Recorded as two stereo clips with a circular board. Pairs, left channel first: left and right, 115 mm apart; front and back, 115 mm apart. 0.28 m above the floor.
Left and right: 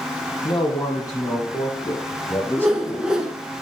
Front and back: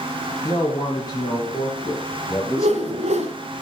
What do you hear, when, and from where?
0.4 s a man speaking: 40° left, 2.5 m; by 3.1 s 25° left, 1.3 m
2.6 s a whoosh: 175° right, 0.9 m